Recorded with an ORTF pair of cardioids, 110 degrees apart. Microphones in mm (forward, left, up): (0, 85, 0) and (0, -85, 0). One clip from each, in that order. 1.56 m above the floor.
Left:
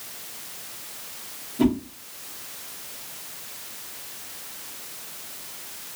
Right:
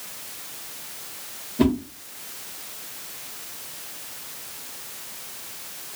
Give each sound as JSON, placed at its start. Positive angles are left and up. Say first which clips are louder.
{"t": 1.6, "sound": "a whoosh", "louder": "right 1 dB", "azimuth_deg": -20, "distance_m": 1.0}